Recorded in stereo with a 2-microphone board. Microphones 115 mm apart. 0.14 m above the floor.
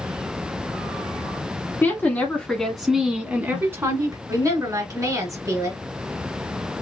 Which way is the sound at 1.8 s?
20° left (ahead or behind).